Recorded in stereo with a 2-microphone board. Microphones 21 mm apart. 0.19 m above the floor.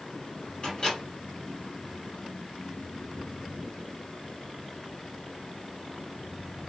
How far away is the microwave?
About 2 m.